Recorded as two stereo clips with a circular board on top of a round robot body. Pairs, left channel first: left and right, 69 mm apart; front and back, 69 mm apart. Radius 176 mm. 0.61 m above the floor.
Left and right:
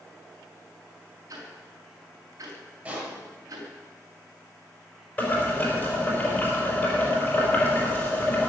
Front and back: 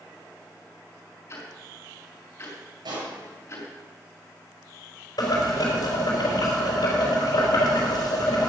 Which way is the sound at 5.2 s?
25° left.